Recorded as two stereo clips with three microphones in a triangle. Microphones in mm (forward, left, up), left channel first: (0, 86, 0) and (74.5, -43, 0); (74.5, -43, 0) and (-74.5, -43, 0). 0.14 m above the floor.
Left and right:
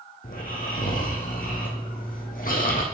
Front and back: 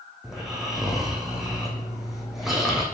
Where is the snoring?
90° left, 1.6 m.